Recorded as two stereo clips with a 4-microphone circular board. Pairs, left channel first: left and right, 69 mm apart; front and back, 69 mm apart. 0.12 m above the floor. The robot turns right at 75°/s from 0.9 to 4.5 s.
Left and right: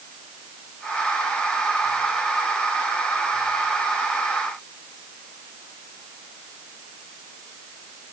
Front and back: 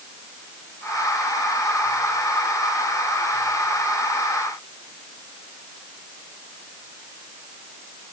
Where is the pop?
No pop in this recording.